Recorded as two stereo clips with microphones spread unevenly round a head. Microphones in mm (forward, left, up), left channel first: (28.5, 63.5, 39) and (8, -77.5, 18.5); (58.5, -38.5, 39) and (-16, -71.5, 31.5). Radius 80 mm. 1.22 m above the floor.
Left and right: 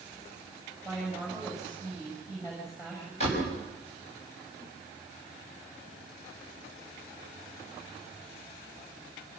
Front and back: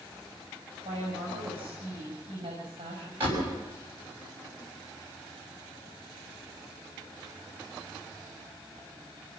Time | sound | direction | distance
0.8 | a woman speaking | 155° left | 5.5 m
3.2 | a door slam | 130° left | 6 m